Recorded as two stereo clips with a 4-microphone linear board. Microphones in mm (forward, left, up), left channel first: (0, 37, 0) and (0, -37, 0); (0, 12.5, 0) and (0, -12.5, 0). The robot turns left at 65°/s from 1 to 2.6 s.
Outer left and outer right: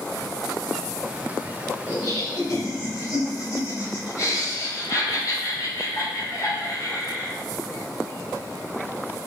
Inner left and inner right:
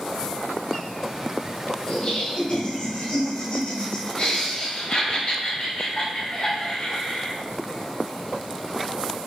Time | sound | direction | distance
1.9 | laughter | 105° left | 2 m